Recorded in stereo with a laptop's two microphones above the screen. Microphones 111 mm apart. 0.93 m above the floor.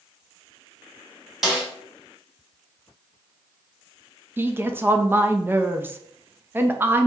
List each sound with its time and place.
1.4 s a snare drum: centre (ahead or behind), 1.6 m
4.4 s a woman speaking: 20° right (ahead or behind), 0.6 m